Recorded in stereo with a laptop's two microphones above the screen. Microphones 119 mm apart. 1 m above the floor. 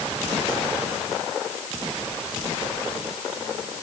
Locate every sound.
Only background noise.